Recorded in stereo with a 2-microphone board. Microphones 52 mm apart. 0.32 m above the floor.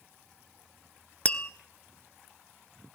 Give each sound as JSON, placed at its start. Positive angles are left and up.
{"t": 1.2, "sound": "tapping", "side_deg": 25, "distance_m": 0.7}